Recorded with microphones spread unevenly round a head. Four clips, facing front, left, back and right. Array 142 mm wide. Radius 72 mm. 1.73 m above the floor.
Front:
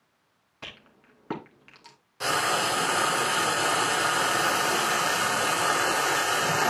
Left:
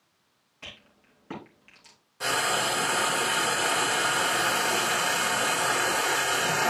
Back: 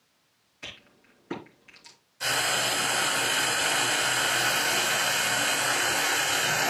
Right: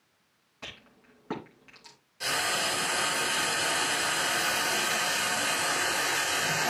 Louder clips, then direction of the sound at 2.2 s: Left 4 dB, front 3 dB; 30° left.